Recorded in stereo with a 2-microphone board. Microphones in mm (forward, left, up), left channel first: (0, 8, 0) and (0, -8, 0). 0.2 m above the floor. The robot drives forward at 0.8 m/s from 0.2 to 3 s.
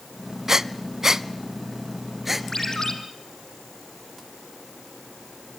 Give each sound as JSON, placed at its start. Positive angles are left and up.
{"t": 0.5, "sound": "breathing", "side_deg": -40, "distance_m": 0.6}
{"t": 2.5, "sound": "a ringtone", "side_deg": 40, "distance_m": 3.0}